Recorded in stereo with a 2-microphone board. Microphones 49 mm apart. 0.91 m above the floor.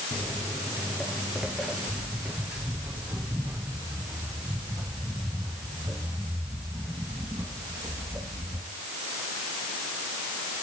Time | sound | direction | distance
0.1 | footsteps | 25° left (ahead or behind) | 1.3 m